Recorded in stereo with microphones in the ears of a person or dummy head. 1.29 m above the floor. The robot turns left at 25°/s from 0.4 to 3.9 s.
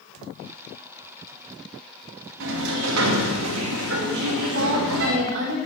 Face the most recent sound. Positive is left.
turn(degrees=-60)  # may be behind; listen again after turning